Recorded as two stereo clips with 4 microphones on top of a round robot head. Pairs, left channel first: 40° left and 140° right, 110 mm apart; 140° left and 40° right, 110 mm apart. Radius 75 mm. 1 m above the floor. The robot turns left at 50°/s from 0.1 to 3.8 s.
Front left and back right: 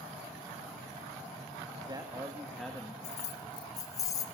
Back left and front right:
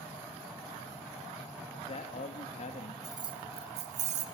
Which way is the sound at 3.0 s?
20° left.